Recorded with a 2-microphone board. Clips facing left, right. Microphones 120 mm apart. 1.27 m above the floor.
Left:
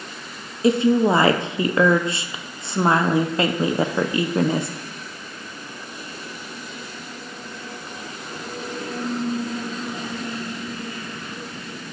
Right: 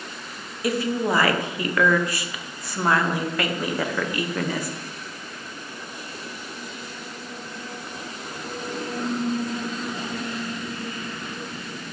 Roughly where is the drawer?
No drawer in this recording.